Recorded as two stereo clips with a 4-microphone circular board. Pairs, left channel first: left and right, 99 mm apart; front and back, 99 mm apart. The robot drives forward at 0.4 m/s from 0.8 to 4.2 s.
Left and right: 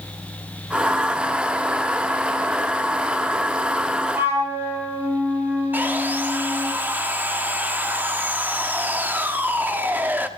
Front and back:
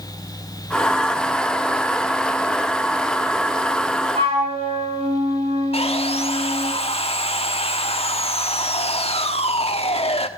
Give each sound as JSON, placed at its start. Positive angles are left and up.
{"t": 4.1, "sound": "a flute", "azimuth_deg": -160, "distance_m": 5.5}
{"t": 5.7, "sound": "sawing", "azimuth_deg": -15, "distance_m": 1.2}